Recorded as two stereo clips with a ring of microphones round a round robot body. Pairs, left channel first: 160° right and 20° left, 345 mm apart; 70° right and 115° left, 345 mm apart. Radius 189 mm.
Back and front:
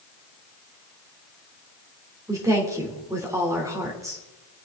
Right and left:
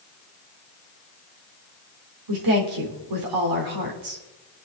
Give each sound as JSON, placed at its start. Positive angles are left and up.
{"t": 2.3, "sound": "a woman speaking", "azimuth_deg": 105, "distance_m": 3.5}